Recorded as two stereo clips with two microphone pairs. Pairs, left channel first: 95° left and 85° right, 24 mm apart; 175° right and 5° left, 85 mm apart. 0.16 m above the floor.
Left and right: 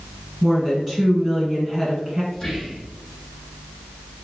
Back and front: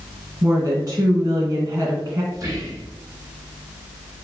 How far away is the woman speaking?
About 1.9 m.